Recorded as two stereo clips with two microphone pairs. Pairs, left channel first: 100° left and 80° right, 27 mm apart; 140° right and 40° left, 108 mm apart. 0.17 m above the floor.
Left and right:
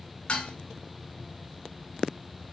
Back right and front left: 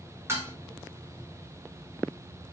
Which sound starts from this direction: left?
Dishes clattering, at 0.3 s.